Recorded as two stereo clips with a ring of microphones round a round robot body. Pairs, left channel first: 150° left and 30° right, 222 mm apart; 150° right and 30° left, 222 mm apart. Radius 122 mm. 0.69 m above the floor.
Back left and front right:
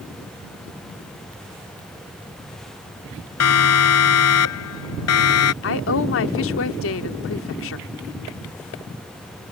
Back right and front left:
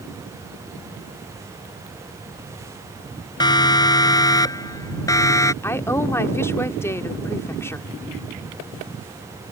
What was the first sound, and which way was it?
A siren, 135° left.